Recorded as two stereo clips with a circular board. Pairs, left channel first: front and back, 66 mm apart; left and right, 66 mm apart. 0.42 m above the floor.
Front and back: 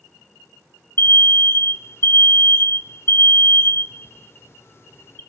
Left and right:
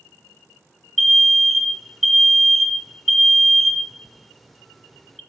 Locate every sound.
1.0 s an alarm: straight ahead, 0.5 m